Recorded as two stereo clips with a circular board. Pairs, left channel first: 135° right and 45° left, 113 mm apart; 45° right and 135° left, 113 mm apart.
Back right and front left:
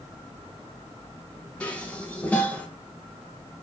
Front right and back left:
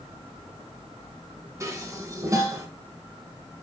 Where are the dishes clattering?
160° left, 0.9 m.